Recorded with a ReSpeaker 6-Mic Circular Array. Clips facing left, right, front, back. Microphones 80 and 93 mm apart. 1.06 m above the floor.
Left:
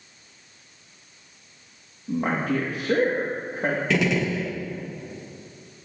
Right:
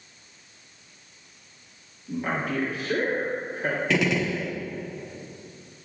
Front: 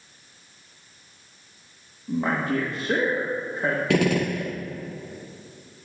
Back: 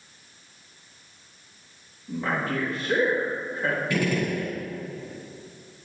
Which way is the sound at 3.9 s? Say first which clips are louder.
Even, front 4 dB; straight ahead.